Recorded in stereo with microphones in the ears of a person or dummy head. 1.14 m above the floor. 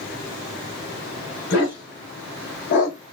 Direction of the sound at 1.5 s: 50° left (ahead or behind).